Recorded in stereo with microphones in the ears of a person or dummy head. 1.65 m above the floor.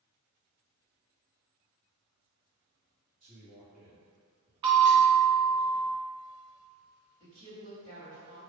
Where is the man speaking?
40° right (ahead or behind), 1.3 m.